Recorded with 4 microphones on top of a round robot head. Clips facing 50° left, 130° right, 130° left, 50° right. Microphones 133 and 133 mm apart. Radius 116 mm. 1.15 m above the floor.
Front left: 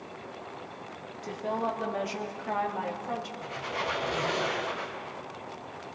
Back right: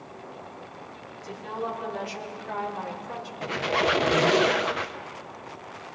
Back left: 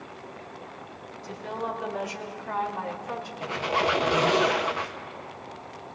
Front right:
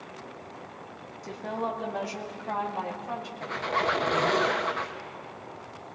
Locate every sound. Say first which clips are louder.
1.2 s a woman speaking: front left 2 dB, front right 1 dB; straight ahead, 3 m; by 3.3 s 20° left, 3.5 m
3.4 s a squeak: back right 8 dB, back left 3 dB; 150° right, 0.5 m